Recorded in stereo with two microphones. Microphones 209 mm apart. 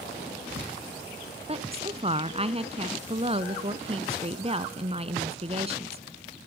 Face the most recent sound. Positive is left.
turn(degrees=-30)  # may be behind; listen again after turning